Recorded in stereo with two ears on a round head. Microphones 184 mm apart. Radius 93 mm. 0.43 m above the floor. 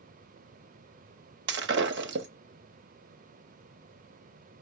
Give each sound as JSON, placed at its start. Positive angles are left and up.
{"t": 1.5, "sound": "breaking glass", "side_deg": -60, "distance_m": 0.8}